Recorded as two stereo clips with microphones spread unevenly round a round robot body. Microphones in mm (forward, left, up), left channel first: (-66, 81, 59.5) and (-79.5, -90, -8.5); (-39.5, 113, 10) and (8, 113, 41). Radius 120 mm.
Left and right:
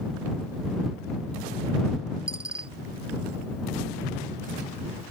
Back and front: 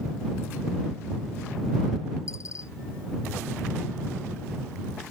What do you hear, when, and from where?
2.3 s a dropped coin: 155° right